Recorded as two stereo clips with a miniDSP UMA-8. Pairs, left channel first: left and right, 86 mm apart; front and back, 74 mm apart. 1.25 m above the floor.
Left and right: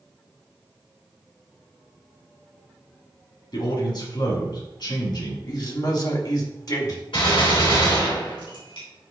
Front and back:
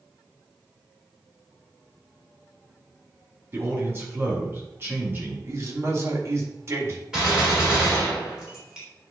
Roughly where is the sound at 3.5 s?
Behind left.